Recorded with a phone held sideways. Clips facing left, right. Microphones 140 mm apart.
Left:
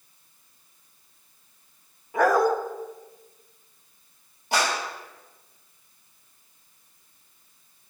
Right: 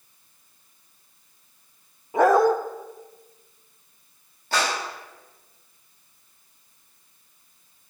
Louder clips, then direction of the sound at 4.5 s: Even; 15° left (ahead or behind).